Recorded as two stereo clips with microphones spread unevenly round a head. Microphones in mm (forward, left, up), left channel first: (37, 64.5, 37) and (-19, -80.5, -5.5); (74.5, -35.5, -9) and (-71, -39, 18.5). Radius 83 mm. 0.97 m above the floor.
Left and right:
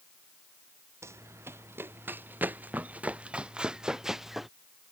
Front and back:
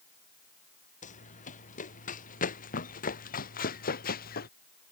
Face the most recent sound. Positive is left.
turn(degrees=-20)